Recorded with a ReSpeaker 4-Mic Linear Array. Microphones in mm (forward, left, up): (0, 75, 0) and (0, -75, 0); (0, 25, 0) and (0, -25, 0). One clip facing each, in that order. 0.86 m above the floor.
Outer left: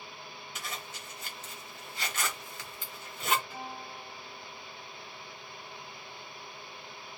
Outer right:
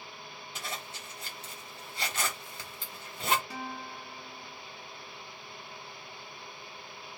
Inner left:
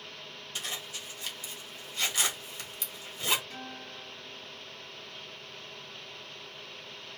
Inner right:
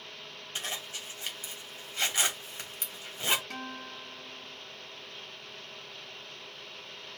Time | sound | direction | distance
0.6 | a zipper | 35° right (ahead or behind) | 1.7 m
3.5 | a guitar | 80° right | 0.6 m